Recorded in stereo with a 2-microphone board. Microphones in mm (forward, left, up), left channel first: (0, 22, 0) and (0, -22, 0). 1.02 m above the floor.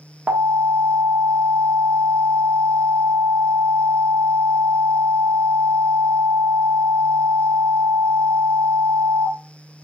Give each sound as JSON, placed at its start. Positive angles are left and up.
{"t": 0.3, "sound": "an alarm", "side_deg": -35, "distance_m": 1.4}